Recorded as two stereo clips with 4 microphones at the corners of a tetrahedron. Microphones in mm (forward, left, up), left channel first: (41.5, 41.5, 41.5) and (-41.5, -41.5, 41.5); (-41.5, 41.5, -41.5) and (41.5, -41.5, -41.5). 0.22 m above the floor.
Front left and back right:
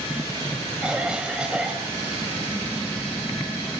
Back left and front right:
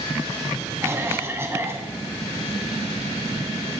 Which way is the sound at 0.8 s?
65° right.